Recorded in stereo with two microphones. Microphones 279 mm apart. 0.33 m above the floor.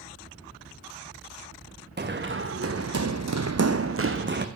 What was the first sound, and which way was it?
Running footsteps, 35° right (ahead or behind).